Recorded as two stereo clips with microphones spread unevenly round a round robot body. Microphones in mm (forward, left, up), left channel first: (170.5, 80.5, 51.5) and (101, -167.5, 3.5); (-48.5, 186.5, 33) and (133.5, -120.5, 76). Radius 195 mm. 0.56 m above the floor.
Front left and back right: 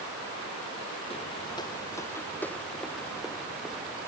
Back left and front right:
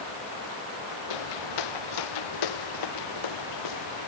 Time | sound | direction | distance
1.1 | footsteps | 150° left | ?